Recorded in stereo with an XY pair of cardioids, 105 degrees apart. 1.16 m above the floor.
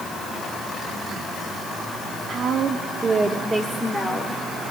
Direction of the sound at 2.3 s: 55° right.